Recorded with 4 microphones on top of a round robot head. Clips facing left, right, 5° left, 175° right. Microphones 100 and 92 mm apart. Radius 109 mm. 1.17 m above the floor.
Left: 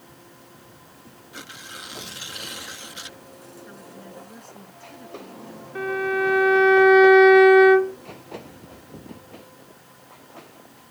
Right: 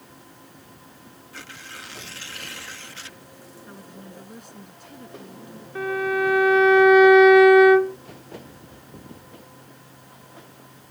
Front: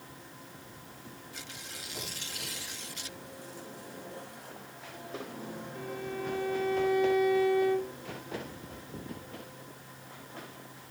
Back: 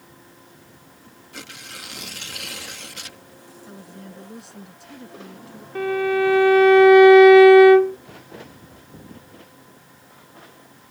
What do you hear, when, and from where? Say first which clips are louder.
1.3 s tearing paper: left 1 dB, back 6 dB; 165° left
3.7 s a woman speaking: even, back 3 dB; 170° right
5.8 s a violin: even, back 19 dB; straight behind